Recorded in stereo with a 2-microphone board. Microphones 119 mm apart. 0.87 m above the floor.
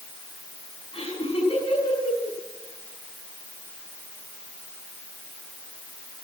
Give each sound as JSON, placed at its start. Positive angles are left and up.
{"t": 0.9, "sound": "laughter", "side_deg": 55, "distance_m": 6.5}